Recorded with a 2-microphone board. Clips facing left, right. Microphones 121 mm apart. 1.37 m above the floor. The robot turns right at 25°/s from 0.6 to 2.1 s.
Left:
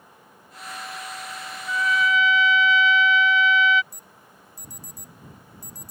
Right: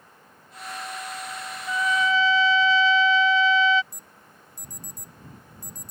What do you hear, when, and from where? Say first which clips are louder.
1.7 s a trumpet: even; 25° right (ahead or behind); by 3.8 s 35° right (ahead or behind)
3.9 s an alarm: left 1 dB; 20° right (ahead or behind)